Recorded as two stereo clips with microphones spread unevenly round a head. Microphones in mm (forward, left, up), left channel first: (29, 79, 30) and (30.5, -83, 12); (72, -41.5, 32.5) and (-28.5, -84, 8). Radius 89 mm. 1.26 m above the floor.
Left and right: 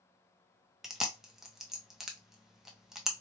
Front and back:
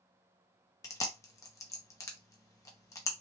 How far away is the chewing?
About 0.5 m.